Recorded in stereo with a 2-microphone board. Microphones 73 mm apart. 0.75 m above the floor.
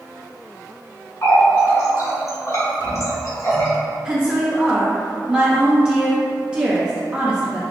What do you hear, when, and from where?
1.2 s a running tap: 50° left (ahead or behind), 1.3 m
4.0 s a woman speaking: 15° right (ahead or behind), 0.5 m